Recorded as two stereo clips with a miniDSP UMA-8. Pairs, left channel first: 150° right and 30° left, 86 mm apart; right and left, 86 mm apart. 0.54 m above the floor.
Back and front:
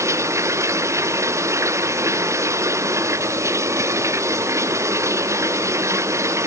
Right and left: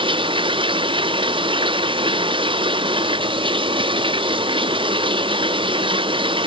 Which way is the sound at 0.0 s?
85° left.